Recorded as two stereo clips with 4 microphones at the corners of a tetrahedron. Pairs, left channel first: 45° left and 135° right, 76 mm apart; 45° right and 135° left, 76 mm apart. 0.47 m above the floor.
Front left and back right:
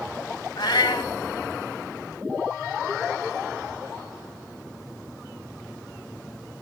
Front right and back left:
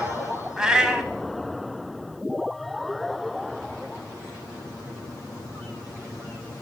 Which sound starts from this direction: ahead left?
A cat meowing, at 0.6 s.